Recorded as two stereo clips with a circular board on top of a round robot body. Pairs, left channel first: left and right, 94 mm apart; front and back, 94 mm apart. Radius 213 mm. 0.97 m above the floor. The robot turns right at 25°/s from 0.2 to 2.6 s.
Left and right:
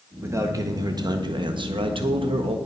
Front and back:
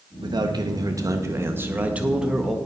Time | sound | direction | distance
0.2 | a man speaking | 150° right | 1.4 m